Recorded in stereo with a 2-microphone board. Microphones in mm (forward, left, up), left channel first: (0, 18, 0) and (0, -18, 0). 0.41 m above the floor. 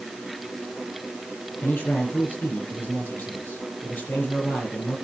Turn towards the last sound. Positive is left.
turn(degrees=80)